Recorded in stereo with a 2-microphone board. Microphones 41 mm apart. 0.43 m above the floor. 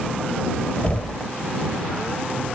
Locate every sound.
0.8 s knocking: 35° left (ahead or behind)